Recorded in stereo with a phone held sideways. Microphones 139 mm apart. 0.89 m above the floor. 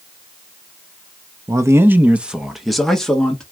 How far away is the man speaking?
About 0.7 m.